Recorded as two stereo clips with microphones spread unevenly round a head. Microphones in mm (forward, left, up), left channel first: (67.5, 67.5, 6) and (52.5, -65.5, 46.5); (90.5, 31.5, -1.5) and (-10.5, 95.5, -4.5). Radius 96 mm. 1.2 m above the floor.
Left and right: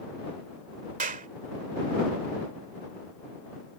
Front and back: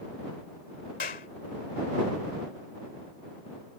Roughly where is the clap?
Right.